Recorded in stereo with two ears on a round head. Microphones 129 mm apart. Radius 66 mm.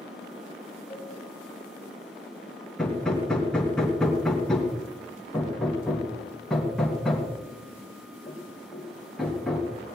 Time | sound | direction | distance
0.9 | a cowbell | 20° right (ahead or behind) | 9 m
2.8 | hammering | 5° left (ahead or behind) | 3 m